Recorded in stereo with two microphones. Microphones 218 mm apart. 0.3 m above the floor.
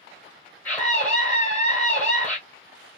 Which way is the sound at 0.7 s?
5° left (ahead or behind).